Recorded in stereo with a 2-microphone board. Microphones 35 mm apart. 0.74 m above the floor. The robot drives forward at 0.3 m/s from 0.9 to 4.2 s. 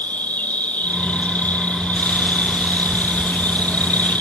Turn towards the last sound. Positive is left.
turn(degrees=60)  # may be behind; listen again after turning